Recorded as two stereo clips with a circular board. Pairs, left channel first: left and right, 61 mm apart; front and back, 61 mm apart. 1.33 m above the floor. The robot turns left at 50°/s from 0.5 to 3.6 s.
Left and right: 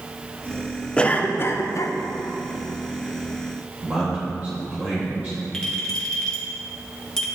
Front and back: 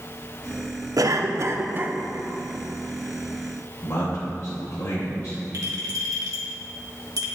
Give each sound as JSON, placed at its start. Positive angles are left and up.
{"t": 1.0, "sound": "a cough", "azimuth_deg": 165, "distance_m": 0.6}
{"t": 3.8, "sound": "a man speaking", "azimuth_deg": -30, "distance_m": 1.7}
{"t": 5.5, "sound": "a clink", "azimuth_deg": 170, "distance_m": 1.6}